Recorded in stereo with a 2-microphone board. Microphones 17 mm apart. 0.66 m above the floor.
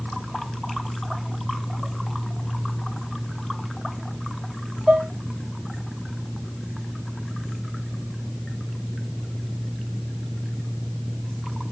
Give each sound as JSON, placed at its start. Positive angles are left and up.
{"t": 4.9, "sound": "dishes clattering", "side_deg": -55, "distance_m": 0.6}